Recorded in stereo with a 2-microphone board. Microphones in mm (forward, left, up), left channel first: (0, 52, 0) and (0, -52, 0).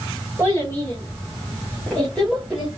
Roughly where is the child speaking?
Left.